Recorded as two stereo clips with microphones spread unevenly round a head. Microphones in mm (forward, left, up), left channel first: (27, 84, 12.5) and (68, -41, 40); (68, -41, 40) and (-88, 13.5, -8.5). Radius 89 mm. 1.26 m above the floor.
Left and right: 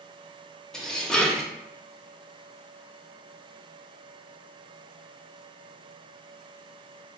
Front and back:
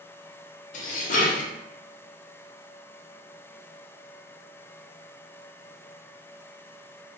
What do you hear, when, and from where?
0.7 s dishes clattering: 15° left, 0.6 m